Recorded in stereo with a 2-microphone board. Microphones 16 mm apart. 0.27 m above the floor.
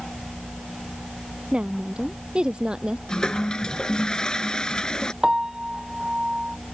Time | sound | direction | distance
1.5 | a woman speaking | 80° right | ?
3.1 | a toilet flushing | 55° left (ahead or behind) | ?
5.2 | a piano | 40° right (ahead or behind) | ?